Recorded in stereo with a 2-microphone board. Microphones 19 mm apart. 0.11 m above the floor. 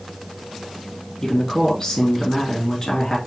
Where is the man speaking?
25° left (ahead or behind), 1.4 m.